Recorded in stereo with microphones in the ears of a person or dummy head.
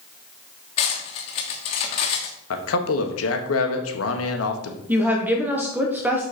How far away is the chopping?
No chopping in this recording.